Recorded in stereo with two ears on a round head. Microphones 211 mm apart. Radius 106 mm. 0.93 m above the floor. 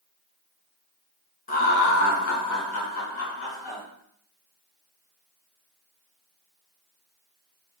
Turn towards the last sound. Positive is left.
turn(degrees=60)  # may be behind; listen again after turning